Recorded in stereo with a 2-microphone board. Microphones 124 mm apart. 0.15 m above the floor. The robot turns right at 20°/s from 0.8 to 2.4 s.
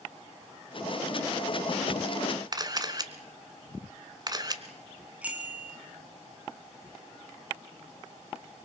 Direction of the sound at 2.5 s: 35° right (ahead or behind).